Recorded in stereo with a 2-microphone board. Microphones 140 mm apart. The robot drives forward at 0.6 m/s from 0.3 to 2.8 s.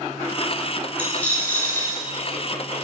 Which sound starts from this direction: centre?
A dropped coin, at 1.0 s.